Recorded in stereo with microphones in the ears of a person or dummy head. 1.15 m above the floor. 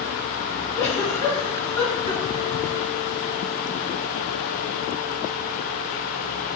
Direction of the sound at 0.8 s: 5° left (ahead or behind).